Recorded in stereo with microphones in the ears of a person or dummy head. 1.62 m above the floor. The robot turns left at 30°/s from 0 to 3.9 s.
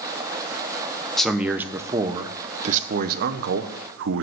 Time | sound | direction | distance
1.2 | a man speaking | straight ahead | 0.8 m